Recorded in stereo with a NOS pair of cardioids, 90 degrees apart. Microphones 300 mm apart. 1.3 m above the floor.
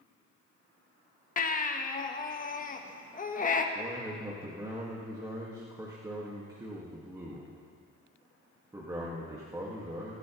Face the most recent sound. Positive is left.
turn(degrees=-10)